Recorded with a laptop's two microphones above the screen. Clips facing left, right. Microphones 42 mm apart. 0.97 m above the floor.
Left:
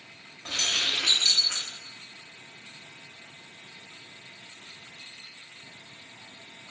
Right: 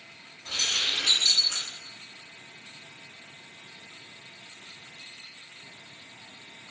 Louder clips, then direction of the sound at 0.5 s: Left 1 dB; 85° left.